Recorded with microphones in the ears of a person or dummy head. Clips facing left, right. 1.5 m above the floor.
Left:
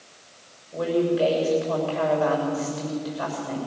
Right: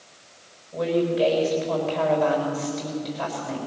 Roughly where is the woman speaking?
Centre.